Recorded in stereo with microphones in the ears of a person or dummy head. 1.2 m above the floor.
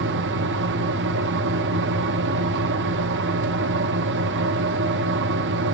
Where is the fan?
55° right (ahead or behind), 0.9 m.